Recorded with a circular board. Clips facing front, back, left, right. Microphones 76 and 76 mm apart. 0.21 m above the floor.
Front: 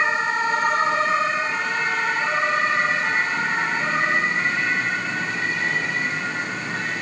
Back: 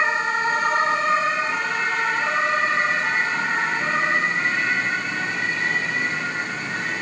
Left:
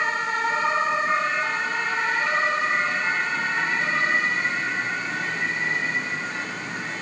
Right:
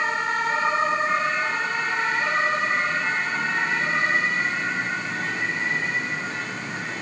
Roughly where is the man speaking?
No man speaking in this recording.